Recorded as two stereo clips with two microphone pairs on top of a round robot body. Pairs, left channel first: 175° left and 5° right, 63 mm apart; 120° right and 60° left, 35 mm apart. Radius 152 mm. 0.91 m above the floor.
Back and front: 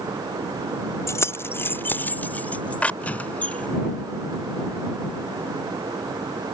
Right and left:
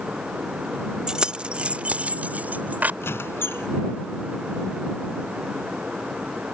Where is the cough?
I don't hear a cough.